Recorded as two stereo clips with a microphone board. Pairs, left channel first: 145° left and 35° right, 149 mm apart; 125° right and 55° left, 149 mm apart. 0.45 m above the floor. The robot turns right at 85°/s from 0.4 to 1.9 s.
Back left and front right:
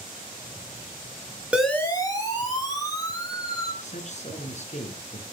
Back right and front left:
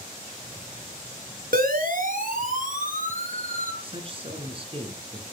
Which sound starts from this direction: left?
A man speaking, at 3.8 s.